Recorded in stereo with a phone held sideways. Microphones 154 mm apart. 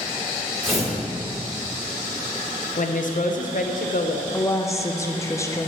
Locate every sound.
0.6 s tearing paper: 45° right (ahead or behind), 2.5 m
2.8 s a woman speaking: 60° left (ahead or behind), 0.7 m
4.3 s a woman speaking: 20° left (ahead or behind), 0.6 m